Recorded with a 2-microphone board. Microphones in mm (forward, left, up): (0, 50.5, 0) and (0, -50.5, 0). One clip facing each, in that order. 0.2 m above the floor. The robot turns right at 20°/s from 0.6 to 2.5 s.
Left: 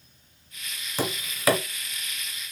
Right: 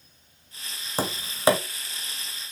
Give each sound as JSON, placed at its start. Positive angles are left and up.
{"t": 1.0, "sound": "tapping", "side_deg": -35, "distance_m": 0.9}